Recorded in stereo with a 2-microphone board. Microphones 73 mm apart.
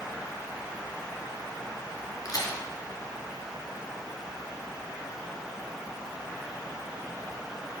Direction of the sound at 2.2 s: 55° left (ahead or behind).